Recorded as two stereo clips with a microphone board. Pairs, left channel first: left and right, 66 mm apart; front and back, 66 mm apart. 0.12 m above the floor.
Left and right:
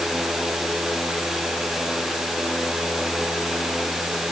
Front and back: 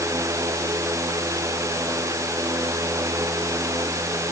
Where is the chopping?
No chopping in this recording.